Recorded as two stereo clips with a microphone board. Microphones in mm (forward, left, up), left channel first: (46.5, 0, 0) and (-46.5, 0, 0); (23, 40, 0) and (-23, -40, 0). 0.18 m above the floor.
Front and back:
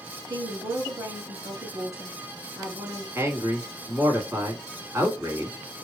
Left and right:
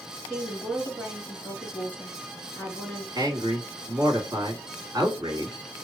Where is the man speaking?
135° right, 1.5 m.